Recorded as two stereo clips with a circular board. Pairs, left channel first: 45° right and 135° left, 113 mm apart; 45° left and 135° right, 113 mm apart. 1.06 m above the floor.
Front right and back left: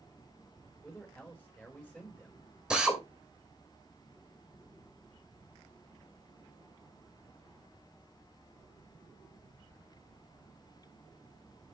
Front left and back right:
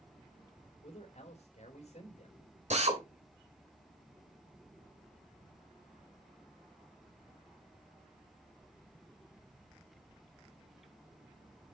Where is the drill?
140° right, 2.5 m.